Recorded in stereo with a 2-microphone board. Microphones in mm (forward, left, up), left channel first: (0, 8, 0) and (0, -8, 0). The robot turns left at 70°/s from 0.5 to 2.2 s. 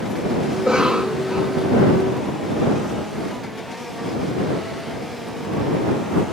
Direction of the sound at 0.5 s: 65° right.